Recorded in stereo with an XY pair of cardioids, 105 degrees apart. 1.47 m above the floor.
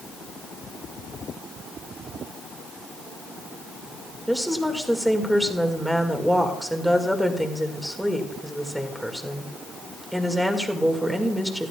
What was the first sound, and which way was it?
A woman speaking, 5° right.